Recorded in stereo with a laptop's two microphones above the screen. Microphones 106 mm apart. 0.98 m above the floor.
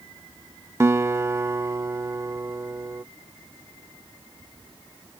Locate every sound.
0.8 s a guitar: 25° right (ahead or behind)